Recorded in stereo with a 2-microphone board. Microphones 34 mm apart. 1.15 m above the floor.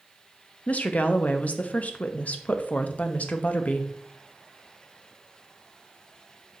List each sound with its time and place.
0.7 s a woman speaking: 45° left (ahead or behind), 0.7 m